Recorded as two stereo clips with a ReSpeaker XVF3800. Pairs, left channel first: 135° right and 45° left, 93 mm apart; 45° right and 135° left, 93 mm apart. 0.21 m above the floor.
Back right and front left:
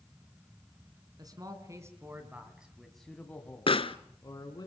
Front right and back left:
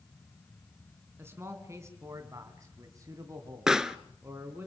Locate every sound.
1.2 s a man speaking: 80° left, 2.5 m; by 4.7 s 165° right, 3 m
3.7 s a pop: 140° right, 0.8 m